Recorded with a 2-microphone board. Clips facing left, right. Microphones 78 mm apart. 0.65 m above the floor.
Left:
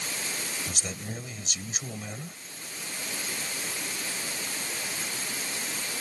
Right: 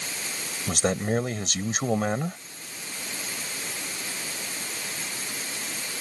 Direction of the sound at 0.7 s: 70° right (ahead or behind).